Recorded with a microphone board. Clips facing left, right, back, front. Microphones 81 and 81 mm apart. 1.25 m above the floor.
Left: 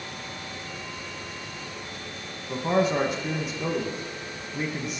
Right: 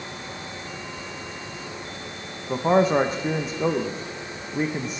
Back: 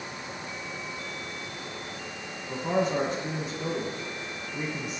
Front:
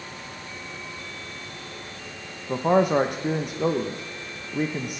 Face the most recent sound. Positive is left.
turn(degrees=-35)